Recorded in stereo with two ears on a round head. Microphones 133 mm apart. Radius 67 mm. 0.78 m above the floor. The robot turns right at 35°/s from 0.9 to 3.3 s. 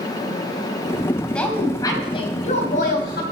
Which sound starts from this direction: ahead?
A woman speaking, at 1.3 s.